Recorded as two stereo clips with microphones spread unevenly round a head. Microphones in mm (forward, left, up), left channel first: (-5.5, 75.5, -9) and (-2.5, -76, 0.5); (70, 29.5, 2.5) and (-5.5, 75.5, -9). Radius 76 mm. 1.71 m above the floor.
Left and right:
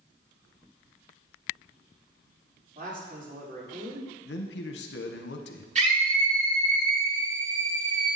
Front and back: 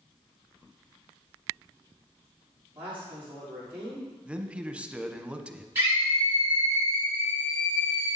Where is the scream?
135° right, 5 m.